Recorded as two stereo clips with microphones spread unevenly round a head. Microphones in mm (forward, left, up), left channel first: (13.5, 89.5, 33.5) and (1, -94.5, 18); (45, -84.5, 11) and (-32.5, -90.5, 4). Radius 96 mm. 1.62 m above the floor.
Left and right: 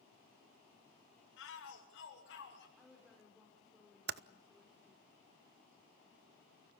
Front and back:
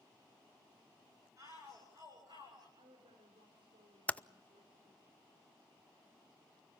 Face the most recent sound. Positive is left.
turn(degrees=-65)